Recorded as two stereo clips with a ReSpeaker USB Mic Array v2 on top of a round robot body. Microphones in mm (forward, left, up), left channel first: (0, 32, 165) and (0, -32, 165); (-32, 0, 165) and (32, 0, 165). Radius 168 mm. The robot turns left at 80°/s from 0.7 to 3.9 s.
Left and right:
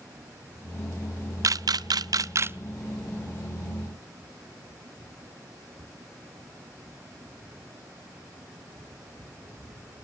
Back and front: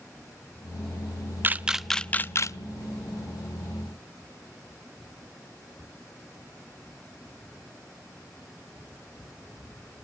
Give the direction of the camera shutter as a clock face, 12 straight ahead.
2 o'clock.